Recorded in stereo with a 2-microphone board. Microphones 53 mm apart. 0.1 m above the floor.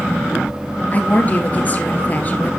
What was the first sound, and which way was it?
A woman speaking, 35° left (ahead or behind).